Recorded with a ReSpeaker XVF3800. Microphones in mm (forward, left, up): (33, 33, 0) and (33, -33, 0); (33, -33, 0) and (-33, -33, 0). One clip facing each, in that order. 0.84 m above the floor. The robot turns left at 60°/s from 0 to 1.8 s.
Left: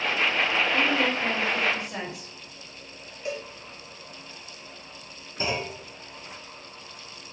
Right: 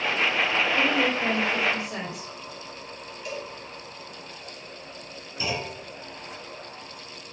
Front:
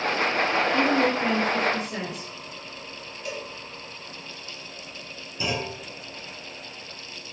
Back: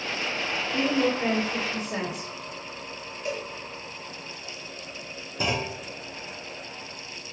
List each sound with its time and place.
0.7 s a woman speaking: 100° right, 2 m; by 2.3 s 165° right, 2 m
3.2 s a cowbell: 135° left, 0.9 m
5.4 s a clunk: 145° left, 0.9 m